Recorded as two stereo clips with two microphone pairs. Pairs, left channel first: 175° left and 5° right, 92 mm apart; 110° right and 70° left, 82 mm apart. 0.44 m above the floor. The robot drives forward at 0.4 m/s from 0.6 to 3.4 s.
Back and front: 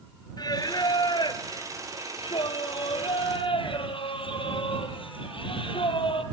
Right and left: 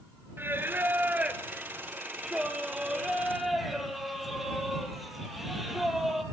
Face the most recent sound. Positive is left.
turn(degrees=155)